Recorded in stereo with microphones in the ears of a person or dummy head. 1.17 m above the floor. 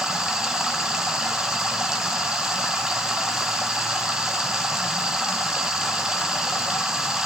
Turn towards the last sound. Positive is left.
turn(degrees=-5)  # may be behind; listen again after turning